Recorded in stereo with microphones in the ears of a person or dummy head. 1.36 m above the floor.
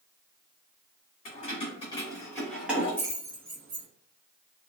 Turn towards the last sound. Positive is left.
turn(degrees=-45)  # may be behind; listen again after turning